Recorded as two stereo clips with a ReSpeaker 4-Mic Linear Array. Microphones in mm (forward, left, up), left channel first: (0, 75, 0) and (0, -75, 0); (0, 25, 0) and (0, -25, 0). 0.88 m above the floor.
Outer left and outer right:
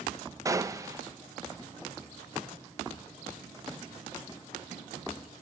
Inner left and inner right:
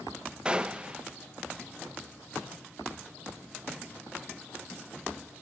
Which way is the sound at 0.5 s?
20° right (ahead or behind).